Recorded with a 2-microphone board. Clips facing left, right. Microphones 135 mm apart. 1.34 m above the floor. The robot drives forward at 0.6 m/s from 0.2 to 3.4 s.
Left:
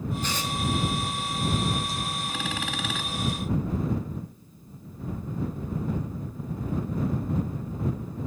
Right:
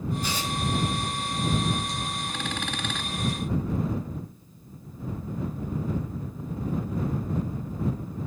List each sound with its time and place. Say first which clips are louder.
0.2 s tearing paper: even; 10° right (ahead or behind), 5 m